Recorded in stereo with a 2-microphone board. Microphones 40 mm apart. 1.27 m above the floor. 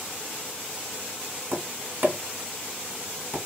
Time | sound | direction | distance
1.5 | tapping | 45° right (ahead or behind) | 1.4 m